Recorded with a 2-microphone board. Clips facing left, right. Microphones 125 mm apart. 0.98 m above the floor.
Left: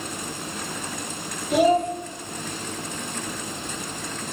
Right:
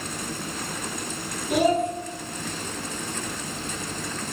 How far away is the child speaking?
About 0.9 m.